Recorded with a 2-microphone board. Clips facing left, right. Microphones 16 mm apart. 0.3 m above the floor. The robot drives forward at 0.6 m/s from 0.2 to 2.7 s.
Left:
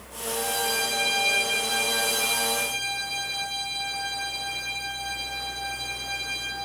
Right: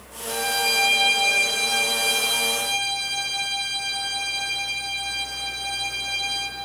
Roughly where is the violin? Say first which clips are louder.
Right 5 dB; right.